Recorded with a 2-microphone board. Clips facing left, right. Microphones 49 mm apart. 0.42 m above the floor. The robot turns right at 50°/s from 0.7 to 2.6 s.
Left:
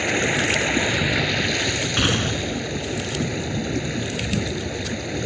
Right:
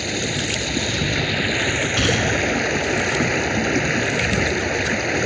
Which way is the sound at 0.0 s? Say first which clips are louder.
Left 3 dB; 150° left.